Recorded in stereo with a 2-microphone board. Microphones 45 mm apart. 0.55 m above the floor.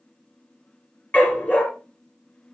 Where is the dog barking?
40° left (ahead or behind), 3.5 m.